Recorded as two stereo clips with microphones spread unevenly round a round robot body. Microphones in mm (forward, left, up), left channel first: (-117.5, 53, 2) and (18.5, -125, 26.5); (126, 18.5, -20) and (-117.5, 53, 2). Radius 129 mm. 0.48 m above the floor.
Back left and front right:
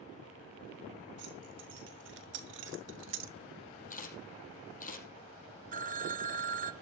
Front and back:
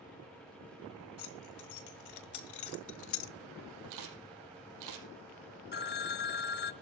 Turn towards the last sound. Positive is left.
turn(degrees=-5)